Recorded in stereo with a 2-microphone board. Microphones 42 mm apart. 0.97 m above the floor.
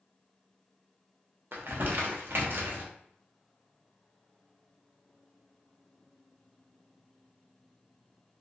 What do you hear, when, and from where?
1.5 s crumpling: 60° right (ahead or behind), 0.6 m